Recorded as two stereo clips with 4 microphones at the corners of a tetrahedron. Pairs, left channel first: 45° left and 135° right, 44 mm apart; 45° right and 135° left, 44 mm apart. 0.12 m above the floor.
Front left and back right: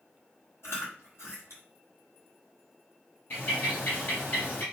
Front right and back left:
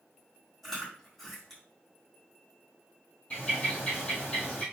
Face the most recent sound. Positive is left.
turn(degrees=15)